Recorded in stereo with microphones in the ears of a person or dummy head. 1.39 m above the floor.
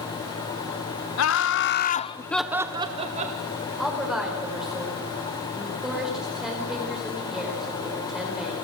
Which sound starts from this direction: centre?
A woman speaking, at 3.8 s.